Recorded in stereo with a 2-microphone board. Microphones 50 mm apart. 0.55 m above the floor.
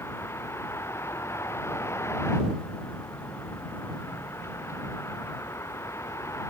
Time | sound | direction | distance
0.0 | a vehicle | 60° left (ahead or behind) | ?